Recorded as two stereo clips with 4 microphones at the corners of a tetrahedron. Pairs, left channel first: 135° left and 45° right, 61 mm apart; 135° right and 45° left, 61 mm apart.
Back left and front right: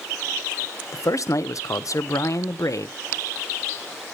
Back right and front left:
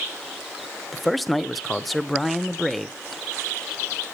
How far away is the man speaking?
About 0.6 m.